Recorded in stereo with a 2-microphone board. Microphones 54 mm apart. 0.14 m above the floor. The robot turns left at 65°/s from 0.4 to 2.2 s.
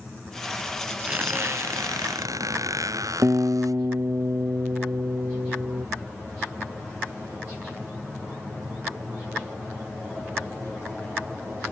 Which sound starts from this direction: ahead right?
A squeak, at 1.1 s.